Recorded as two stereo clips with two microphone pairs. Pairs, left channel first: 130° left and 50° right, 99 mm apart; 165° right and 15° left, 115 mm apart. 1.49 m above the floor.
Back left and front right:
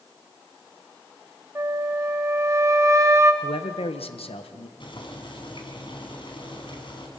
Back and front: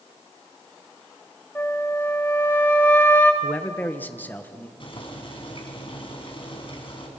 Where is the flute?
100° right, 1.3 m.